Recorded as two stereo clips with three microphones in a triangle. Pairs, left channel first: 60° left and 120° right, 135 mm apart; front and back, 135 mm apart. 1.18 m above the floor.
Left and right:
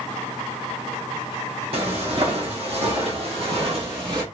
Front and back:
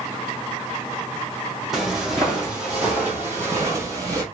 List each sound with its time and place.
1.7 s footsteps: 90° right, 2 m; by 4.2 s 135° right, 1.5 m